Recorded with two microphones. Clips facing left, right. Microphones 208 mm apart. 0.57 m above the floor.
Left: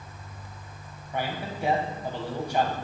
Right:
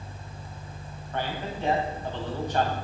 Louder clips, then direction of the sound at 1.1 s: Even; 10° left (ahead or behind).